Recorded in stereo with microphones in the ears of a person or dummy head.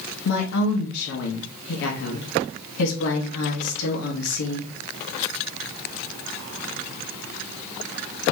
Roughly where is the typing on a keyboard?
I don't hear typing on a keyboard.